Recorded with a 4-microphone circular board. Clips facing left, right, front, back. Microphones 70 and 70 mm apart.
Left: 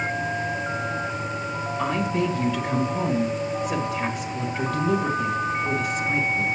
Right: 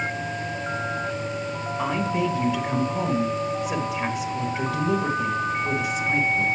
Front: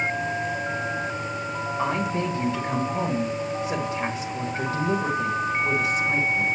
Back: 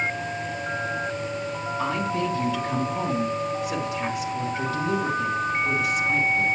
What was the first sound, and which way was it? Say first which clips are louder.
A woman speaking: even, even; 10° right.